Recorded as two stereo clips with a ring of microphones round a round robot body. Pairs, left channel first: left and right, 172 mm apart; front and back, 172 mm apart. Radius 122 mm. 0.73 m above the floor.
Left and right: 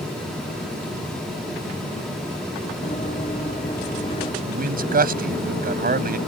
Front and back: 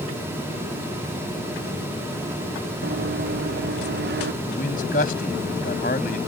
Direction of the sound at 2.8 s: 155° left.